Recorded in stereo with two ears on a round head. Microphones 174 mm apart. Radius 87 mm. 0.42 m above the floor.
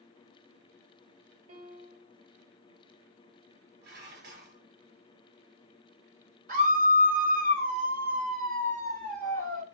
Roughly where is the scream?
Right.